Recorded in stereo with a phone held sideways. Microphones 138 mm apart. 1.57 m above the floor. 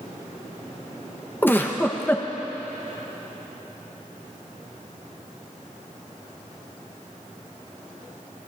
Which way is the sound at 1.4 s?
15° left (ahead or behind).